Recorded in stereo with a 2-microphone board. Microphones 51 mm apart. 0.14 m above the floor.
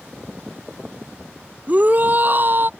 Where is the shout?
35° right (ahead or behind); by 2.7 s 45° right (ahead or behind).